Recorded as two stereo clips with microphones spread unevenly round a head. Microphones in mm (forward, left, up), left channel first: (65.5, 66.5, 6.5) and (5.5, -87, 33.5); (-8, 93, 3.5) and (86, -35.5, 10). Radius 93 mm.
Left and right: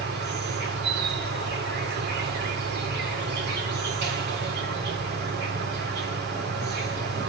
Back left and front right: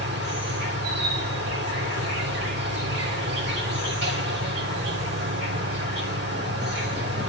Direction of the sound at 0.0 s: 90° right.